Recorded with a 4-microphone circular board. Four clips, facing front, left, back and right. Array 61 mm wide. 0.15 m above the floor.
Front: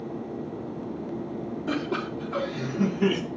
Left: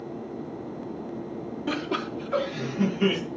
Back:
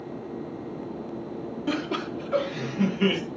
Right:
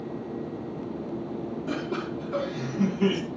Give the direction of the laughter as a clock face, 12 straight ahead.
8 o'clock.